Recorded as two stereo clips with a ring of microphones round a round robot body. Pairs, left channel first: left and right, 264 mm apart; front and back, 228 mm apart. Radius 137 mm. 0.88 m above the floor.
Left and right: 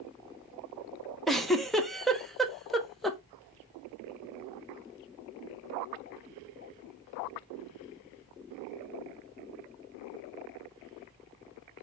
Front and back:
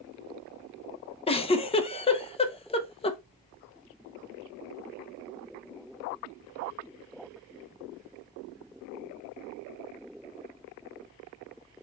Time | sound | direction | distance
1.3 | a giggle | straight ahead | 0.7 m